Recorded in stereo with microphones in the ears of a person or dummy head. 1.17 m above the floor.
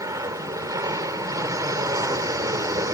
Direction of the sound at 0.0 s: 15° right (ahead or behind).